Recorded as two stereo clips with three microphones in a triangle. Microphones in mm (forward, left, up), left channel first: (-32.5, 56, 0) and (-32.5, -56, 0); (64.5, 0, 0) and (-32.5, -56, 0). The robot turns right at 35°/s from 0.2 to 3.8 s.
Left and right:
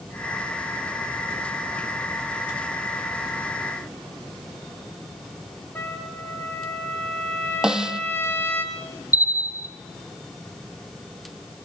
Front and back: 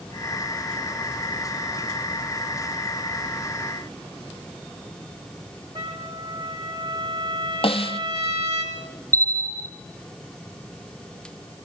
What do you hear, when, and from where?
5.8 s a trumpet: 165° left, 4.5 m
7.6 s a snare drum: 5° right, 0.9 m
9.1 s a bell: 80° left, 1.4 m